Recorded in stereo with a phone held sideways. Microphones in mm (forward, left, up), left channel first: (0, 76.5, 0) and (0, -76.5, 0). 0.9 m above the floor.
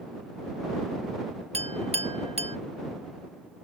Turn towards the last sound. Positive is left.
turn(degrees=-40)  # may be behind; listen again after turning